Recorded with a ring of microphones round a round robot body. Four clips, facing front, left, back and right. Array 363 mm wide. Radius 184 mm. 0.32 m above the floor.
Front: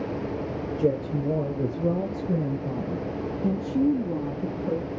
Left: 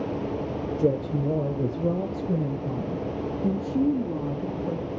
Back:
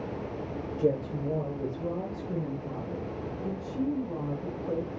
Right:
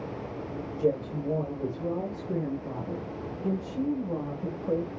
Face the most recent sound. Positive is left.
turn(degrees=35)